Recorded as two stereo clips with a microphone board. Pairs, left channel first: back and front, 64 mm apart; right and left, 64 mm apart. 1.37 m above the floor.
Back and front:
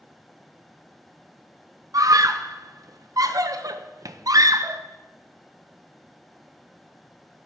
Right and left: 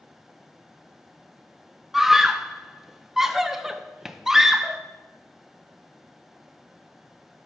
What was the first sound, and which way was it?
A scream, 5° left.